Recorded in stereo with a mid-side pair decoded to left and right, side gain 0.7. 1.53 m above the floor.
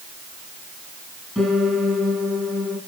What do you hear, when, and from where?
1.4 s a piano: straight ahead, 5.5 m